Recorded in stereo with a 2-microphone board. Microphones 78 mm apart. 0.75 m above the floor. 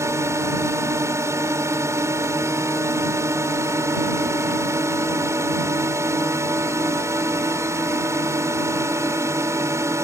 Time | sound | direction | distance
0.0 | a drone | 35° right (ahead or behind) | ?